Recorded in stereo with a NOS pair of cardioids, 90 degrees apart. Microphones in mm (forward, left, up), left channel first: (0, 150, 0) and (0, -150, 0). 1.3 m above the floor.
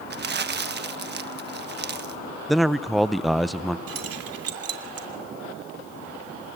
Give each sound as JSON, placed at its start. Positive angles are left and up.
{"t": 0.1, "sound": "crumpling", "azimuth_deg": -35, "distance_m": 1.4}
{"t": 2.5, "sound": "a man speaking", "azimuth_deg": 0, "distance_m": 0.8}
{"t": 3.9, "sound": "keys jangling", "azimuth_deg": -50, "distance_m": 3.0}